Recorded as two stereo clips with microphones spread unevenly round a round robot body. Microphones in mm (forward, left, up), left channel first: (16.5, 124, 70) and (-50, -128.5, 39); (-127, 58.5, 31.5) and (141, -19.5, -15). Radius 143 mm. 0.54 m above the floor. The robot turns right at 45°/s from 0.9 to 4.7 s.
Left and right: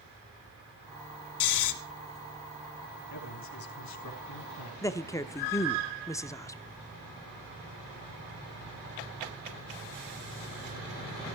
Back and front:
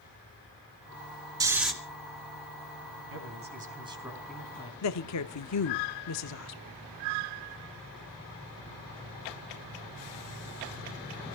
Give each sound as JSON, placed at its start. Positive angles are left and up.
{"t": 1.4, "sound": "snoring", "azimuth_deg": 60, "distance_m": 2.0}
{"t": 3.1, "sound": "a man speaking", "azimuth_deg": 20, "distance_m": 4.0}
{"t": 4.8, "sound": "a woman speaking", "azimuth_deg": 155, "distance_m": 1.0}